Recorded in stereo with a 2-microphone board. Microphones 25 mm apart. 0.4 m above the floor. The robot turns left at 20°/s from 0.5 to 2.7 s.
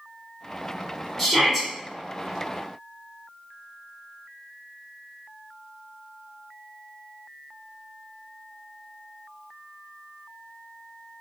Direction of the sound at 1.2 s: Centre (ahead or behind).